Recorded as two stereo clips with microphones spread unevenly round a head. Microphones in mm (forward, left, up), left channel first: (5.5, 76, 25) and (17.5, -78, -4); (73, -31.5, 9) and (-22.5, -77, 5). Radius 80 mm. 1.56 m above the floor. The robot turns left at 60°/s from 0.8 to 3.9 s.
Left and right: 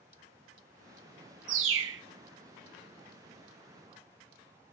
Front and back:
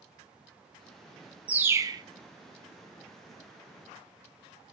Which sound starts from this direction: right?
A bird, at 1.5 s.